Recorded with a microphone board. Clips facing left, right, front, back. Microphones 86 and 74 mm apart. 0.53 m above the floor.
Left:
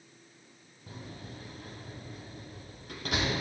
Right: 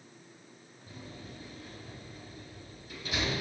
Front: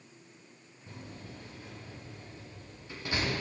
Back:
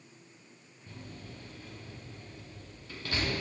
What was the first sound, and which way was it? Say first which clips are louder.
A door slam: left 2 dB, front 1 dB; 70° left.